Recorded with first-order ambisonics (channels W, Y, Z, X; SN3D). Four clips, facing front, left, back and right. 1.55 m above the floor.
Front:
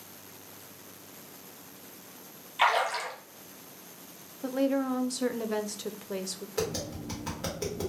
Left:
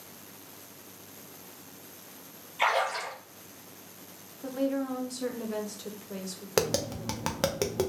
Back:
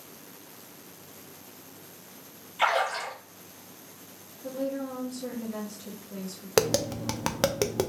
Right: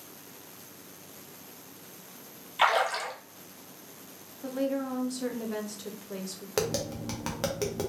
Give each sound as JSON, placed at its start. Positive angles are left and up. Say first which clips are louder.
{"t": 2.6, "sound": "a splash", "louder": "right 2 dB, even", "azimuth_deg": -60, "distance_m": 1.8}
{"t": 4.4, "sound": "a woman speaking", "louder": "even, front 5 dB", "azimuth_deg": 0, "distance_m": 0.5}
{"t": 6.6, "sound": "tapping", "louder": "left 2 dB, back 9 dB", "azimuth_deg": 165, "distance_m": 0.5}